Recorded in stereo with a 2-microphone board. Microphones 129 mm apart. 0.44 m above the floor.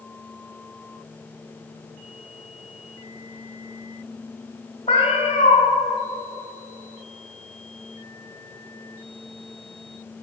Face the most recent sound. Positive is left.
turn(degrees=45)  # may be behind; listen again after turning